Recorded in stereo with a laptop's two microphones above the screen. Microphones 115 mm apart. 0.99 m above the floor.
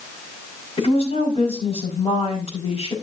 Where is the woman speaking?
60° left (ahead or behind), 4.5 m.